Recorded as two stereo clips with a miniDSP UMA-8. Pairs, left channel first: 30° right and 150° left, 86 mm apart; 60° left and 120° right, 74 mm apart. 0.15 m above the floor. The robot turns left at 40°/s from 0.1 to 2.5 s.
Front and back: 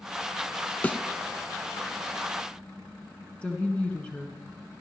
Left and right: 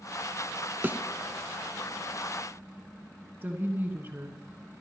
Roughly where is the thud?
Right.